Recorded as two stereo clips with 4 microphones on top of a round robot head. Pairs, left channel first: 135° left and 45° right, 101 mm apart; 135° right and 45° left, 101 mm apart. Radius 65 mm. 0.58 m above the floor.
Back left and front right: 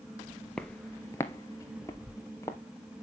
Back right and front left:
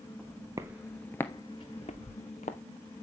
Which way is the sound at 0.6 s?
65° left.